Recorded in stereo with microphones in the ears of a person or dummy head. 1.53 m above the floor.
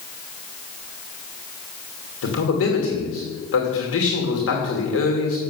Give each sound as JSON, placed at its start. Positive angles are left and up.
{"t": 2.2, "sound": "a man speaking", "side_deg": 75, "distance_m": 2.5}